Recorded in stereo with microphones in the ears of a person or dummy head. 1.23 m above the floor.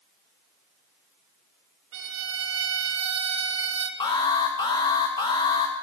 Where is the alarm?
20° left (ahead or behind), 0.9 m.